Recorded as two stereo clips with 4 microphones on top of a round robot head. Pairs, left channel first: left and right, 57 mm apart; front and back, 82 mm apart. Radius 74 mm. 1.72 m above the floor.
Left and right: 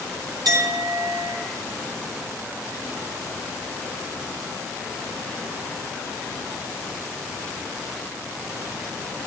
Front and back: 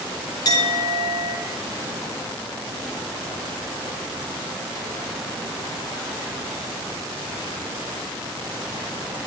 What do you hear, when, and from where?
0.5 s a clink: 55° right, 3 m